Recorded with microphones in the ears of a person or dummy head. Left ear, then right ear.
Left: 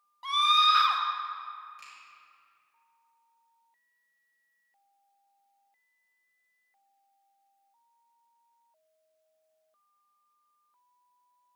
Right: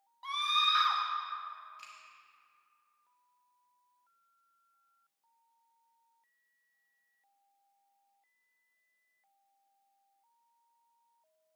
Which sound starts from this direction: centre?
A scream, at 0.2 s.